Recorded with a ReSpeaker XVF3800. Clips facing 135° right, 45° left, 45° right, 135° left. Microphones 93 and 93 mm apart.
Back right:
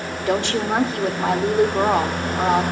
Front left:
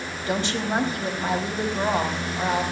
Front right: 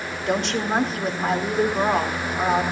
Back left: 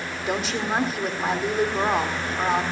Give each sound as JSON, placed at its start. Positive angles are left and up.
{"t": 0.3, "sound": "a woman speaking", "azimuth_deg": -135, "distance_m": 2.0}